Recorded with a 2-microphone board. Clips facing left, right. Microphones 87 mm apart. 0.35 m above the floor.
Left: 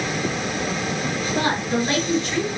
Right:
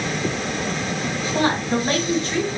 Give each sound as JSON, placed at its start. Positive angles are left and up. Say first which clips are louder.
{"t": 1.3, "sound": "a woman speaking", "louder": "right 2 dB", "side_deg": -45, "distance_m": 1.6}